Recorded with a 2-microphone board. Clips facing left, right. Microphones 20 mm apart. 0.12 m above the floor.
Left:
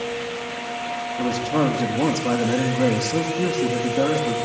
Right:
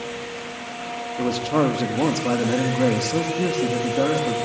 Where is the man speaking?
45° right (ahead or behind), 5 m; by 4.4 s 15° right (ahead or behind), 6 m.